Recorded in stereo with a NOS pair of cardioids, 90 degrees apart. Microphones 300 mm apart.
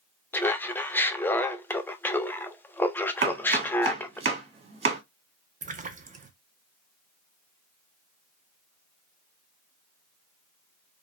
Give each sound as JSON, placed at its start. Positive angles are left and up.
{"t": 0.3, "sound": "laughter", "azimuth_deg": 5, "distance_m": 0.6}
{"t": 3.2, "sound": "chopping", "azimuth_deg": -35, "distance_m": 1.5}
{"t": 5.6, "sound": "a splash", "azimuth_deg": -25, "distance_m": 0.6}